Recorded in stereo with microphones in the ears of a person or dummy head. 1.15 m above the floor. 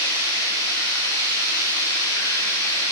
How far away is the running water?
About 5.5 m.